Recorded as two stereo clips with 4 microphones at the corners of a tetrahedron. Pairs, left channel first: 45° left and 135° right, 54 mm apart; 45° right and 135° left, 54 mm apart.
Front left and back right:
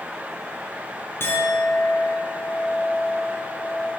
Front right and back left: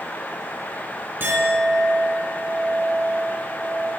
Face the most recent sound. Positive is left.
turn(degrees=90)